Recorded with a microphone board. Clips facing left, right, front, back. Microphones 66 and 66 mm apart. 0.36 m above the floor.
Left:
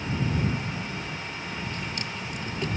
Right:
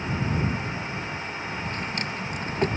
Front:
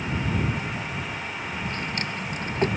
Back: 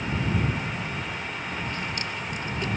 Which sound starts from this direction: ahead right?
A drawer, at 1.6 s.